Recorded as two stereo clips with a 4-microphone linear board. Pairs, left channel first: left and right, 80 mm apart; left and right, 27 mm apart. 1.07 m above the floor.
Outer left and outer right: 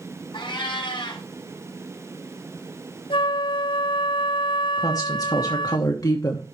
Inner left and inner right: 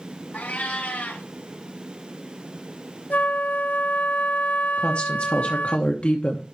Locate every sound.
0.3 s a cat meowing: 70° left (ahead or behind), 4 m
3.1 s a flute: 85° left, 0.7 m
4.8 s a woman speaking: 50° left (ahead or behind), 1.0 m